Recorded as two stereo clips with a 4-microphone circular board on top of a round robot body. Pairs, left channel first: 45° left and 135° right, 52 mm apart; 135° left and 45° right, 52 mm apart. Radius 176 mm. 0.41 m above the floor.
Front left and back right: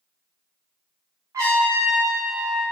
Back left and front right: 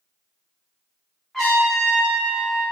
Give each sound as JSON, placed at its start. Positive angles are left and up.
{"t": 1.3, "sound": "a trumpet", "azimuth_deg": -140, "distance_m": 0.6}